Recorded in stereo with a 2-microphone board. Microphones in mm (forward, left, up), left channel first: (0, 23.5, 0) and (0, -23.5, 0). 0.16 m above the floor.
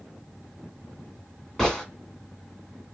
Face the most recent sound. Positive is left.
turn(degrees=10)  # may be behind; listen again after turning